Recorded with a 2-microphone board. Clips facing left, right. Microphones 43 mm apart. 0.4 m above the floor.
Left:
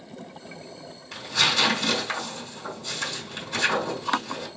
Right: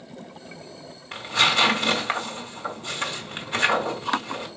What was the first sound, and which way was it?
Tearing paper, 40° right (ahead or behind).